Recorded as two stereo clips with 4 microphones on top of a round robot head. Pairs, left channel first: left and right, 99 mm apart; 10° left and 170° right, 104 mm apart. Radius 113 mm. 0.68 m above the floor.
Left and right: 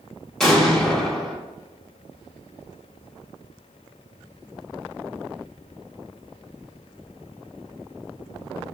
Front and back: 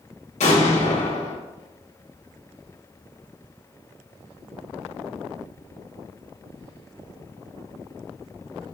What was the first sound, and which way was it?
An explosion, 5° left.